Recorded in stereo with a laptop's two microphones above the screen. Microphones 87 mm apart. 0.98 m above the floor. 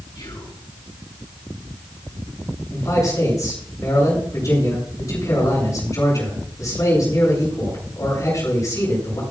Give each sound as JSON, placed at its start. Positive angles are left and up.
{"t": 0.1, "sound": "whispering", "side_deg": 55, "distance_m": 5.5}
{"t": 2.7, "sound": "a man speaking", "side_deg": 40, "distance_m": 7.0}